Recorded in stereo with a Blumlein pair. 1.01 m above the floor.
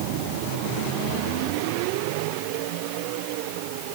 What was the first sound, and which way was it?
Only background noise.